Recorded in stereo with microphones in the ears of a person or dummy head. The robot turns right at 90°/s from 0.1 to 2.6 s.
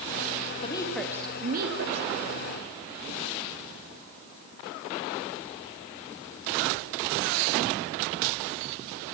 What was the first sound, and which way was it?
A woman speaking, 145° left.